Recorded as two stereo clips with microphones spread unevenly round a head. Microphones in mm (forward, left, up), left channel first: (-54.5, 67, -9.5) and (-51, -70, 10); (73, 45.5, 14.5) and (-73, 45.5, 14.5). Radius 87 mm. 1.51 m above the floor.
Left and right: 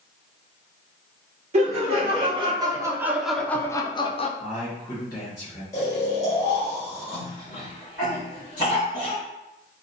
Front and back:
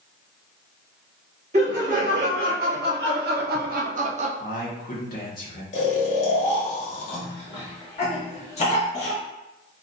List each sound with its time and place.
1.5 s laughter: 125° right, 1.3 m; by 4.3 s 140° left, 0.8 m
4.4 s a man speaking: 25° left, 1.8 m
5.7 s snoring: 20° left, 1.0 m
7.1 s a cough: 40° left, 1.6 m